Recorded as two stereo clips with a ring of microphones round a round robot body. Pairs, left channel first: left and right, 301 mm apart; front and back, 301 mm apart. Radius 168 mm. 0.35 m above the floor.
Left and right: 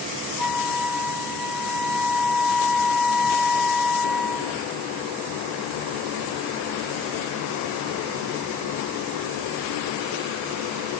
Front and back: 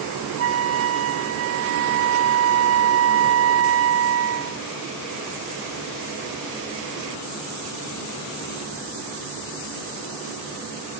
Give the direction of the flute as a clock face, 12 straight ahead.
6 o'clock.